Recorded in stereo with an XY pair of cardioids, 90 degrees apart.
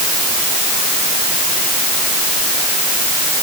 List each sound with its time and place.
Only background noise.